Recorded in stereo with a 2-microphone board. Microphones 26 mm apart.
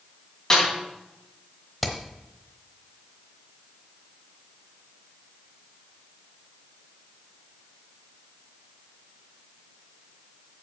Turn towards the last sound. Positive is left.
turn(degrees=0)  # may be behind; listen again after turning